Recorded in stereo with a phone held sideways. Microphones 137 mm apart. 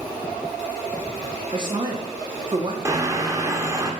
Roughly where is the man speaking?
Right.